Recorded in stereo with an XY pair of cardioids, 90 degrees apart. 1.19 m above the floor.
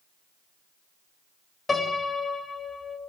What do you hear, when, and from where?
1.7 s a piano: 30° left, 4.5 m